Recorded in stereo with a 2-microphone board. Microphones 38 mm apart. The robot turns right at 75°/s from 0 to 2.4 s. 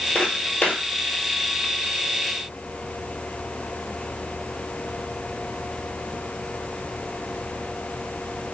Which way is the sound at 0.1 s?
30° left (ahead or behind).